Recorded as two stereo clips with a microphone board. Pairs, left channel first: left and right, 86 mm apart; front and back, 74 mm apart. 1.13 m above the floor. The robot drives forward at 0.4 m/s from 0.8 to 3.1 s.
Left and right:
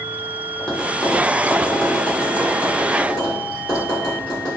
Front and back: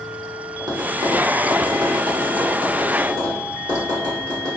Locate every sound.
0.6 s tapping: 170° left, 0.8 m; by 4.5 s 175° left, 1.7 m